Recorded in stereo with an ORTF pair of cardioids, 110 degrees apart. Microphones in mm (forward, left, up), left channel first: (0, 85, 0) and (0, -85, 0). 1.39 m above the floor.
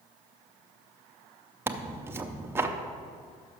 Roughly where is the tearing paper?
Ahead.